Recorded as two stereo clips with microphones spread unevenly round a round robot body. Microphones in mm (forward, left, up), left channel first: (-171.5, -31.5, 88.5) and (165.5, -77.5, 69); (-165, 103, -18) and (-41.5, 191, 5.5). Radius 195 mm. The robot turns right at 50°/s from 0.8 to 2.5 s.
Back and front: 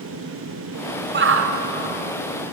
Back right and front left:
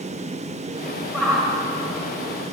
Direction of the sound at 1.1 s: 55° right.